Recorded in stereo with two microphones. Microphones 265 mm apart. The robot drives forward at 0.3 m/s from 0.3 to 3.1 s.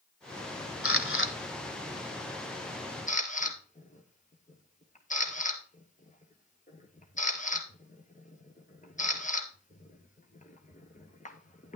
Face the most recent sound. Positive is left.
turn(degrees=30)  # may be behind; listen again after turning